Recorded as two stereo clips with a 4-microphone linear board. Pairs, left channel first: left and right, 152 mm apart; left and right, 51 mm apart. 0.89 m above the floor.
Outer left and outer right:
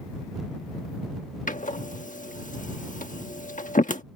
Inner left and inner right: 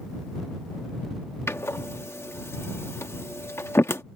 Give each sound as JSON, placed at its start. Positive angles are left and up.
{"t": 1.5, "sound": "a door slam", "side_deg": 60}